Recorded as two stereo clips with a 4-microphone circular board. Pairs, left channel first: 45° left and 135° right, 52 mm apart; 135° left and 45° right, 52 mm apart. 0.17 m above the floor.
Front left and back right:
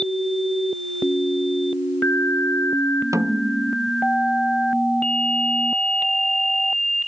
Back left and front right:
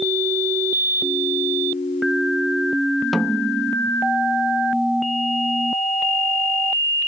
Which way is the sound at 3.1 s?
135° right.